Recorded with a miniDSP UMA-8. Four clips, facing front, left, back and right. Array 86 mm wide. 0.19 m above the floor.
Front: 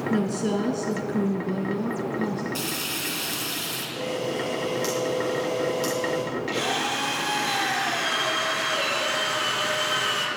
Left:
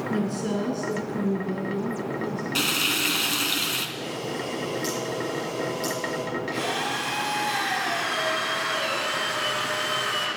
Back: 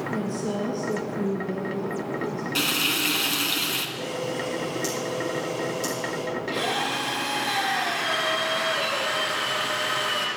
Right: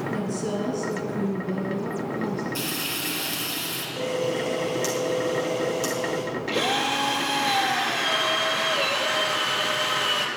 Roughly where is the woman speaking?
Ahead.